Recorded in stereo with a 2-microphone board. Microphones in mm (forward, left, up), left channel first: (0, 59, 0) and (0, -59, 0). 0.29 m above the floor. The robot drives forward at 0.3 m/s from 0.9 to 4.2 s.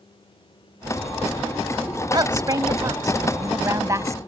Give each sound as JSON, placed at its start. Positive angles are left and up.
{"t": 2.1, "sound": "a woman speaking", "side_deg": -35}